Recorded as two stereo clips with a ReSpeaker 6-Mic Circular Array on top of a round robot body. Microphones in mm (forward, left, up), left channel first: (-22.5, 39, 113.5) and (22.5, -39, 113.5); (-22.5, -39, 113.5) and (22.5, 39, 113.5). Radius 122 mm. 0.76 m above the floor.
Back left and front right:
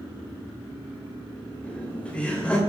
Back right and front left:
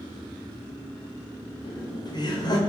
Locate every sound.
1.6 s laughter: 165° right, 3 m